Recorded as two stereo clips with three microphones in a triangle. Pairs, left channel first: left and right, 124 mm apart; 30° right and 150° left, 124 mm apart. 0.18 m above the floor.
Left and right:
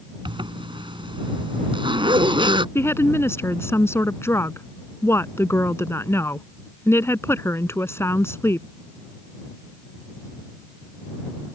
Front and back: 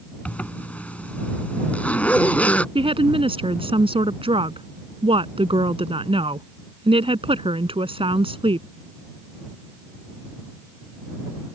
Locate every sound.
0.2 s a zipper: 105° right
2.8 s a woman speaking: 150° left